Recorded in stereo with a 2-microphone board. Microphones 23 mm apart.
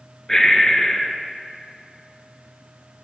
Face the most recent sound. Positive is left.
turn(degrees=25)  # may be behind; listen again after turning